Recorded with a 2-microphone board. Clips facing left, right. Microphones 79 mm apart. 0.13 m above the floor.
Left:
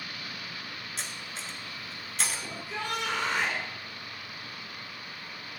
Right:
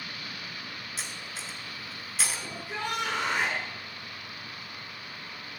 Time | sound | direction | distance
1.0 | cutlery clinking | 5° right (ahead or behind) | 1.0 m
2.5 | a shout | 50° right (ahead or behind) | 2.5 m